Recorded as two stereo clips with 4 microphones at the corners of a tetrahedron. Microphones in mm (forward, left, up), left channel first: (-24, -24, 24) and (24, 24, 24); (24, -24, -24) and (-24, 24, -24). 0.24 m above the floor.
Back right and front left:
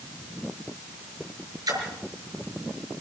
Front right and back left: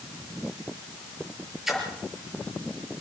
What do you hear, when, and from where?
1.7 s a splash: 50° left, 5.5 m